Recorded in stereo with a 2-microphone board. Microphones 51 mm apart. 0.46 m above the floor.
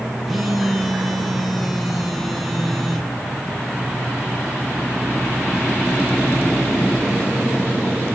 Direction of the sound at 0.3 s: Centre (ahead or behind).